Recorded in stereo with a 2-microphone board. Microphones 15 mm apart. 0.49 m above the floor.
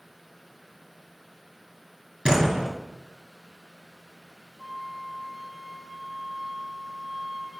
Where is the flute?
65° right (ahead or behind), 2.5 m.